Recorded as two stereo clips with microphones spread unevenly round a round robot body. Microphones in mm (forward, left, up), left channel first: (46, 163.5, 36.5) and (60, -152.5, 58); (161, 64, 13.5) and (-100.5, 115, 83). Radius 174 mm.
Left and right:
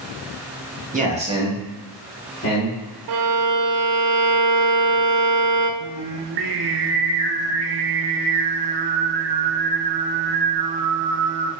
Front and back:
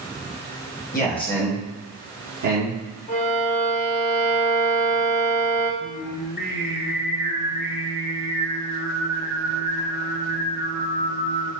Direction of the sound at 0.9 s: 25° right.